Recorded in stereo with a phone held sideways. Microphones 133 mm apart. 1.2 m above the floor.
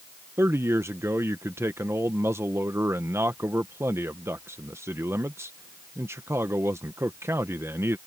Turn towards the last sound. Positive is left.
turn(degrees=-20)  # may be behind; listen again after turning